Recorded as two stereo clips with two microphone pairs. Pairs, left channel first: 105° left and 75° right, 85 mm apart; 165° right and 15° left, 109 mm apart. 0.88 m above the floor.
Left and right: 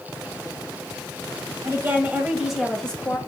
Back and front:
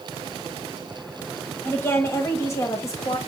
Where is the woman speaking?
110° right, 1.0 m; by 3.2 s 160° left, 1.0 m.